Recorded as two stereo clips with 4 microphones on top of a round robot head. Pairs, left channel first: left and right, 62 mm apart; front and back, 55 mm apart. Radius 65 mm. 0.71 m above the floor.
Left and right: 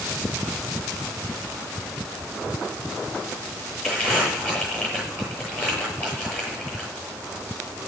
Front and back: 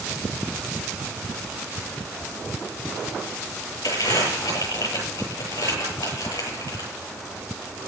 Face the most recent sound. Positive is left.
turn(degrees=15)